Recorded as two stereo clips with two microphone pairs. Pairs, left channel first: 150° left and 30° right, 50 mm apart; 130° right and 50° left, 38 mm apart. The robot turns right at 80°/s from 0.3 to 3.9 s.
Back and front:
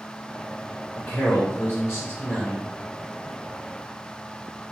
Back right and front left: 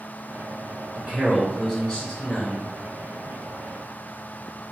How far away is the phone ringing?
I don't hear a phone ringing.